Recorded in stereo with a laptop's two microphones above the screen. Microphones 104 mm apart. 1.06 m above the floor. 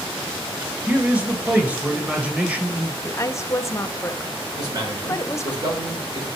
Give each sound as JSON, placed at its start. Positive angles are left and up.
{"t": 0.9, "sound": "a man speaking", "side_deg": -15, "distance_m": 1.6}
{"t": 3.0, "sound": "a woman speaking", "side_deg": 30, "distance_m": 0.9}
{"t": 4.5, "sound": "a man speaking", "side_deg": -40, "distance_m": 4.5}